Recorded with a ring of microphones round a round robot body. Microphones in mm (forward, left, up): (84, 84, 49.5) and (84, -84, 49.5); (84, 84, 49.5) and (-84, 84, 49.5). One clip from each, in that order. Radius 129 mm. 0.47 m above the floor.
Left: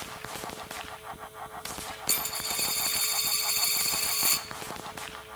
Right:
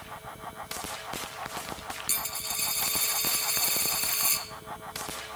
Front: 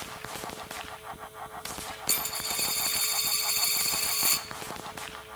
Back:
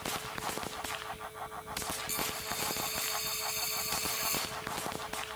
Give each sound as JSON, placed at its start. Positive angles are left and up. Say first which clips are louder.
{"t": 2.1, "sound": "a dropped coin", "louder": "left 3 dB, front 9 dB", "azimuth_deg": 20, "distance_m": 1.6}